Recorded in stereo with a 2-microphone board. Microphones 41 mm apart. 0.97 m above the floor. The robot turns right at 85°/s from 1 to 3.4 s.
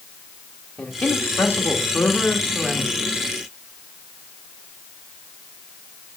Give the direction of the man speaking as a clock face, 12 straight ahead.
11 o'clock.